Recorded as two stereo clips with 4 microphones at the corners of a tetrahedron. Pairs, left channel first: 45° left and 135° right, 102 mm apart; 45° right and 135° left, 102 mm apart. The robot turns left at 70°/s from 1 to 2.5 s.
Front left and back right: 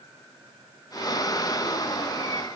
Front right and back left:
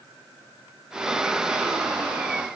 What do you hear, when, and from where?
Only background noise.